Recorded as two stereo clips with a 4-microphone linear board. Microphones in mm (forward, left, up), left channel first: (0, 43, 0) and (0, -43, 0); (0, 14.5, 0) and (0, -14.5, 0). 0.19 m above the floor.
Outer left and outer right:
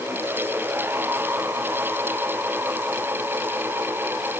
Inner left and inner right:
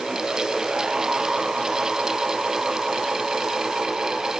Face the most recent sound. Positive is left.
No sound to turn to.